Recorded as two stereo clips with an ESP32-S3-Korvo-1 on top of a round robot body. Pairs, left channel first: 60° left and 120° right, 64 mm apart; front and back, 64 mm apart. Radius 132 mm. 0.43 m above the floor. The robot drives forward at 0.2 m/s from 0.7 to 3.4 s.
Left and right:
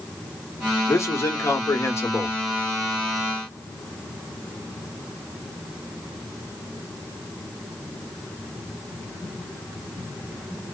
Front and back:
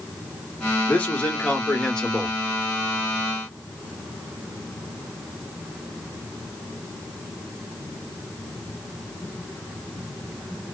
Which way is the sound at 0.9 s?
55° left.